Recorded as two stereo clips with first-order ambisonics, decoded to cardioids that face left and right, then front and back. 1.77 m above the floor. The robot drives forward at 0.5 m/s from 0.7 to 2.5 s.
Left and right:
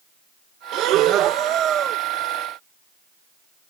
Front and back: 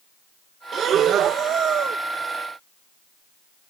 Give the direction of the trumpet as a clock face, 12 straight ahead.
I don't hear a trumpet.